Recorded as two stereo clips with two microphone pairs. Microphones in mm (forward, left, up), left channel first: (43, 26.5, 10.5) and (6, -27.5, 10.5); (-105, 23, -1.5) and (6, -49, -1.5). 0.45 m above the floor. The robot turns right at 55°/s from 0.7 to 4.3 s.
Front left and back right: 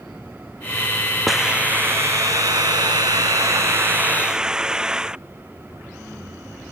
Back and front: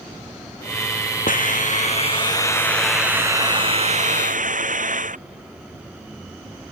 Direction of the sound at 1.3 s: 145° left.